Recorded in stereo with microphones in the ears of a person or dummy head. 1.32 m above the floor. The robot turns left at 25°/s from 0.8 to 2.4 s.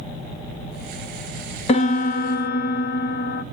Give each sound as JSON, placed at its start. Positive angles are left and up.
{"t": 1.7, "sound": "a piano", "side_deg": 35, "distance_m": 0.8}